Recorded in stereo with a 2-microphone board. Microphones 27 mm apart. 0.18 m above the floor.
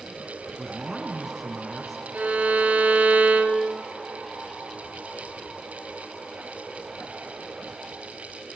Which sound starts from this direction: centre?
A man speaking, at 0.6 s.